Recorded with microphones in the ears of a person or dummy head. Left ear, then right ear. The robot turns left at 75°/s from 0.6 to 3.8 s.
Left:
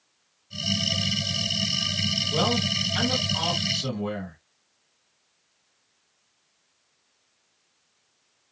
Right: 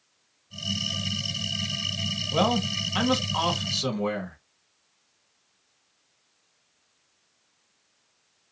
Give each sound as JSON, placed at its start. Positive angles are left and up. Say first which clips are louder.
{"t": 2.3, "sound": "a man speaking", "louder": "left 1 dB", "azimuth_deg": -20, "distance_m": 1.6}